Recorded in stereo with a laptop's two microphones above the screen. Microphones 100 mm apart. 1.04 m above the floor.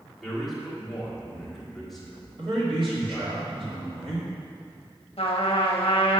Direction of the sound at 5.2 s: 80° left.